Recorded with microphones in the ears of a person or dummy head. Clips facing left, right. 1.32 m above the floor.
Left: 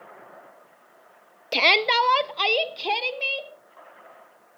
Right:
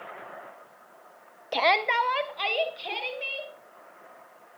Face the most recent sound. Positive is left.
turn(degrees=70)  # may be behind; listen again after turning